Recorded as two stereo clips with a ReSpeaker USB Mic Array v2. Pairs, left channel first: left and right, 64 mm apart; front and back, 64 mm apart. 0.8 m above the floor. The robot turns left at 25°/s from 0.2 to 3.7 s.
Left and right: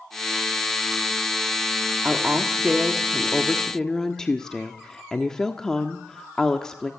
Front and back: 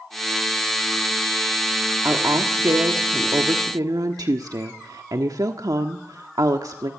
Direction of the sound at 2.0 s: 150° right.